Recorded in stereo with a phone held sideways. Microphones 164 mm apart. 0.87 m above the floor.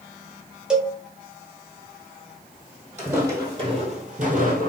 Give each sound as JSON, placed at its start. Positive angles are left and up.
{"t": 0.7, "sound": "a cowbell", "side_deg": -5, "distance_m": 0.8}
{"t": 3.0, "sound": "footsteps", "side_deg": -15, "distance_m": 1.7}